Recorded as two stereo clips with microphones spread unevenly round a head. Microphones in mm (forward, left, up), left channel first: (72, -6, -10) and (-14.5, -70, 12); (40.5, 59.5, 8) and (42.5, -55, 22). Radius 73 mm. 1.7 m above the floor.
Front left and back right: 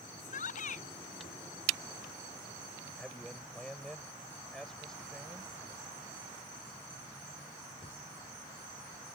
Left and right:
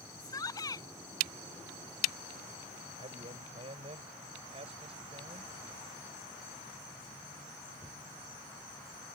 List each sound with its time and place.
0.2 s a shout: 30° left
3.0 s a man speaking: 50° right